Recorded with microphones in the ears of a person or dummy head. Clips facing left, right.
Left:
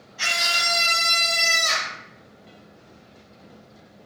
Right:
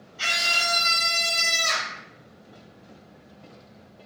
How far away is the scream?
About 2 m.